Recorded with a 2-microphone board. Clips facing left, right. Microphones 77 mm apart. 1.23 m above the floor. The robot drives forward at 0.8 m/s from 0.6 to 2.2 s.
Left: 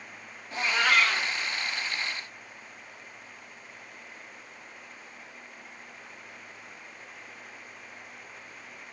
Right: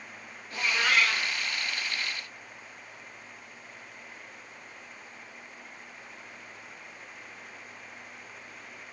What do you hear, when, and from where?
0.5 s a cat meowing: 50° left (ahead or behind), 1.6 m; by 1.3 s 55° left (ahead or behind), 1.5 m